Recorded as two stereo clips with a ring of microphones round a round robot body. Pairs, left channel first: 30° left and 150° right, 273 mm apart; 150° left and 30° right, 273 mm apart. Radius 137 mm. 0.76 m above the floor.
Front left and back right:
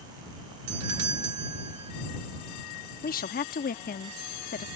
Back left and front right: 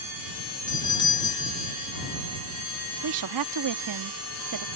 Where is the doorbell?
140° right.